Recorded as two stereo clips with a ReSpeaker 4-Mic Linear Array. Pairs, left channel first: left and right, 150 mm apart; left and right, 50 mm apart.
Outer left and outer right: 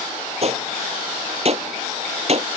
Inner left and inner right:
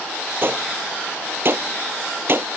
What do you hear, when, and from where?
0.4 s a gunshot: 45° right (ahead or behind)